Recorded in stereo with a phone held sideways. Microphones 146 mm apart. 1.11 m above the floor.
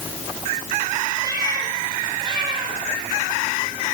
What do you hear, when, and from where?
1.2 s a cat meowing: 25° right (ahead or behind), 7 m; by 3.8 s 40° right (ahead or behind), 7.5 m